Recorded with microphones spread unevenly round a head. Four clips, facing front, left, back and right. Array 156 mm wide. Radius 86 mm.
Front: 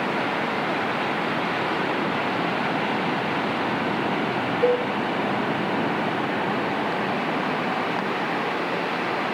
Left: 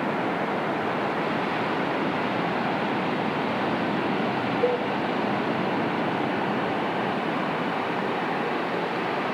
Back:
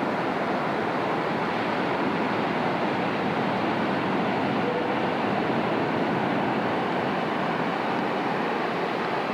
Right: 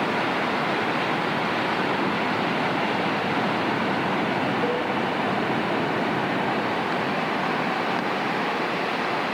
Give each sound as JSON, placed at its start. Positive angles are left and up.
{"t": 4.6, "sound": "a cowbell", "azimuth_deg": 10, "distance_m": 3.5}